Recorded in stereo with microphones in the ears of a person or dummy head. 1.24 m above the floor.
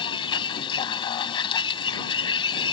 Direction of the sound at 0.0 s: 30° left (ahead or behind).